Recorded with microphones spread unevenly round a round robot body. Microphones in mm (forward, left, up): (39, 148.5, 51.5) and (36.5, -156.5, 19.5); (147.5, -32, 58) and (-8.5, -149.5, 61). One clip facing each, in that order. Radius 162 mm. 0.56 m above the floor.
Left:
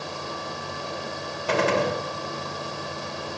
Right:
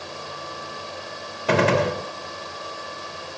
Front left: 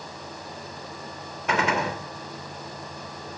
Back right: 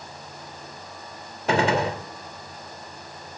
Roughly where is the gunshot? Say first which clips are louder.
Right 3 dB, back right 4 dB; right.